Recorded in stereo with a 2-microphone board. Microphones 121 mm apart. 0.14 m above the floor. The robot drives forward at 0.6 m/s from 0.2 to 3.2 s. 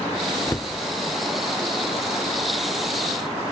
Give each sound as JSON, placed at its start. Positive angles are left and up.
{"t": 0.5, "sound": "a cupboard door", "side_deg": 25, "distance_m": 0.6}